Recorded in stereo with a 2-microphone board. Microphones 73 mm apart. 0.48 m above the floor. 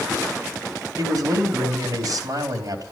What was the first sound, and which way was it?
A man speaking, 60° right (ahead or behind).